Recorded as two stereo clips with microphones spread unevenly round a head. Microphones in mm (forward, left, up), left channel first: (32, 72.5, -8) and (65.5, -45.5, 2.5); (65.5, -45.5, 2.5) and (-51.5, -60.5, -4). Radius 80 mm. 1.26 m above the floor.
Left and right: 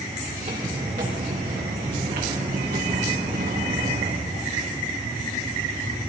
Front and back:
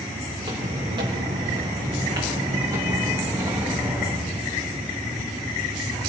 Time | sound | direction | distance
0.4 | footsteps | 130° right | 7 m